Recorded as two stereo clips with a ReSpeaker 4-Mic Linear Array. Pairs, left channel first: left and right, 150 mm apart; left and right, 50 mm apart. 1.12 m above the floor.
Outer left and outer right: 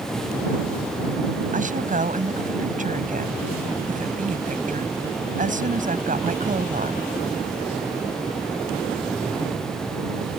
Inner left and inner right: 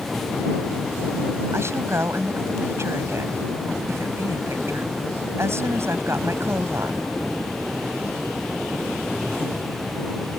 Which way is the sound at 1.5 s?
60° right (ahead or behind).